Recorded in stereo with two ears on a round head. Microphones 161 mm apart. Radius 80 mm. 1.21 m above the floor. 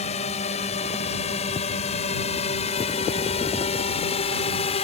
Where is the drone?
40° left (ahead or behind); by 4.8 s 35° left (ahead or behind).